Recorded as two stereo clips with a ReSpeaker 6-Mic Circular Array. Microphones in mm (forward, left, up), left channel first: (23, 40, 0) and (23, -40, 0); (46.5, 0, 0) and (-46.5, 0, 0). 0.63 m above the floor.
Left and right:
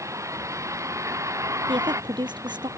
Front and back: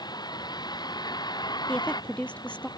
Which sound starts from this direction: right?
A woman speaking, at 1.7 s.